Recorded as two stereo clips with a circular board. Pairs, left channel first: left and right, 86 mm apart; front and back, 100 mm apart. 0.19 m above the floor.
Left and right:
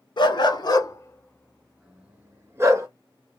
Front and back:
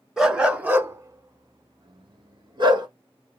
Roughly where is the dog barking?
Left.